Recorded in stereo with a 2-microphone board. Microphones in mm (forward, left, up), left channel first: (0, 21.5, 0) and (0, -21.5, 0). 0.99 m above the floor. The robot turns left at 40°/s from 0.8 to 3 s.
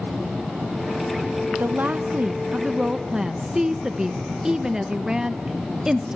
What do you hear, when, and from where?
1.5 s a woman speaking: 105° right, 0.8 m; by 6.2 s 165° right, 0.8 m